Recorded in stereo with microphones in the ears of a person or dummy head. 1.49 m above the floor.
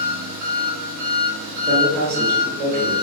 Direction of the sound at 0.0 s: 40° right (ahead or behind).